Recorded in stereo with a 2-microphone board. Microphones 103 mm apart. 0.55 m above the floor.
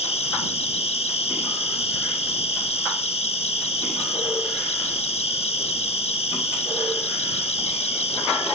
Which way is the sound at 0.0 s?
70° left (ahead or behind).